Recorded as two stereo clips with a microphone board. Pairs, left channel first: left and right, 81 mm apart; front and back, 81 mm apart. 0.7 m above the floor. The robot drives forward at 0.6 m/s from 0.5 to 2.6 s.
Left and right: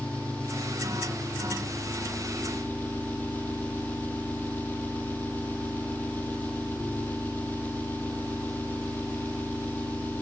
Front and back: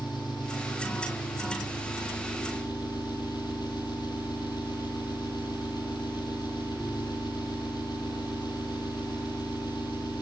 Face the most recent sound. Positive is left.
turn(degrees=20)